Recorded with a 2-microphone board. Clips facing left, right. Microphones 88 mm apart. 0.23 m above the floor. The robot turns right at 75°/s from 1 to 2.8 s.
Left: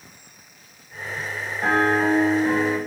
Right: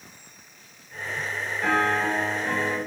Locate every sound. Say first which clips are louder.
1.6 s a piano: left 4 dB; 70° left, 1.6 m; by 2.8 s 160° left, 1.6 m